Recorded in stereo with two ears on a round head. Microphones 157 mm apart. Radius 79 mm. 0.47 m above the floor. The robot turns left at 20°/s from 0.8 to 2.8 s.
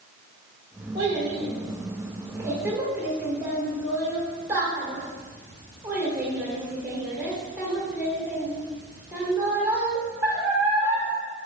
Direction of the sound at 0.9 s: 35° right (ahead or behind).